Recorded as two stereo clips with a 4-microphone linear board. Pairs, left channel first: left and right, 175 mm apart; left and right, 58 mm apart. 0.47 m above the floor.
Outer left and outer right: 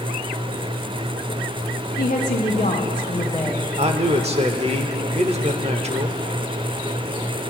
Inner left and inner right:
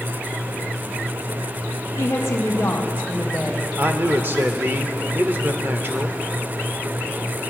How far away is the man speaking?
About 1.0 m.